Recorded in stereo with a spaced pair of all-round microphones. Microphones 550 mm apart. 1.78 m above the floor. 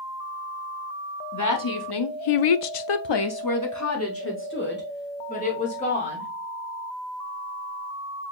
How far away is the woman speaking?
About 0.9 m.